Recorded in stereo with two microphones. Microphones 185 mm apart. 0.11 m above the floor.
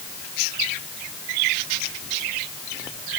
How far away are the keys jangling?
I don't hear keys jangling.